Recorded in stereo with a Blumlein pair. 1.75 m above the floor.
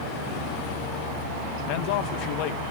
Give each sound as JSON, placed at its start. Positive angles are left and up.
{"t": 1.7, "sound": "a man speaking", "azimuth_deg": 45, "distance_m": 1.7}